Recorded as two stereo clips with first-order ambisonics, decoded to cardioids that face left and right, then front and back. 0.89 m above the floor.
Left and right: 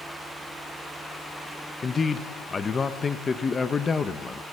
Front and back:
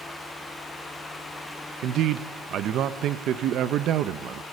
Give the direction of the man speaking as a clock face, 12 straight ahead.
7 o'clock.